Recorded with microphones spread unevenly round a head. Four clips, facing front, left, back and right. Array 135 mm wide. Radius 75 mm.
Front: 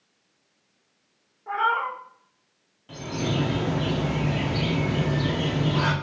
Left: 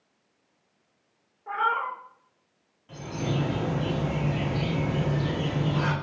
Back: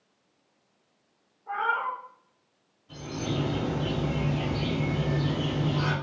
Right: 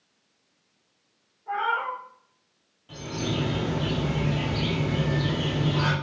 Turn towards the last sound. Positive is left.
turn(degrees=-10)